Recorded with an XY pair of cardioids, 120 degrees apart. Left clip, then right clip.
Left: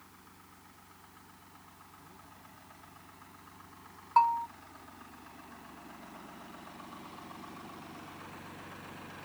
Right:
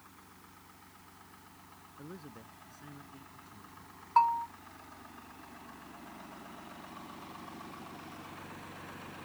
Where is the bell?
5° left.